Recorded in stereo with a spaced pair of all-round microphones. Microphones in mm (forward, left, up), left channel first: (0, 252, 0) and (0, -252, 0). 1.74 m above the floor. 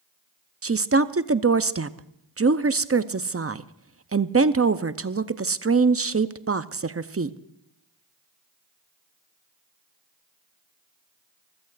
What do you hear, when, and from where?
0.6 s a woman speaking: 30° right (ahead or behind), 0.5 m